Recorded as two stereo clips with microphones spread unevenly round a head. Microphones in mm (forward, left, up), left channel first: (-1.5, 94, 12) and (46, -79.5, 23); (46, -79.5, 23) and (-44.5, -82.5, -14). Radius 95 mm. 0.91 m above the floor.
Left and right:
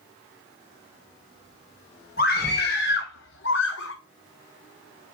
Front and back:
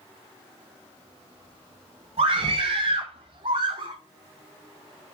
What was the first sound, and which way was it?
A scream, 150° left.